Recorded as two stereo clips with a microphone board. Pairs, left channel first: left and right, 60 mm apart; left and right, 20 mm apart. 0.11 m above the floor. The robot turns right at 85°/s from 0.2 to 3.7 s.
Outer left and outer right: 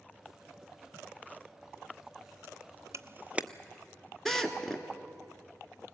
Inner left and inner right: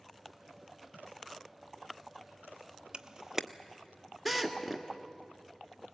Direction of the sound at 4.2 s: 5° left (ahead or behind).